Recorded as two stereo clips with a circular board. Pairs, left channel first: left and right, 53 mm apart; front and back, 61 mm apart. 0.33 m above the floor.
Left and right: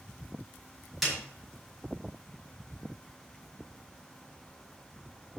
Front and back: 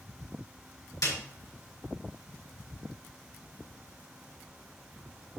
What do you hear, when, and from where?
1.0 s a snare drum: straight ahead, 5.5 m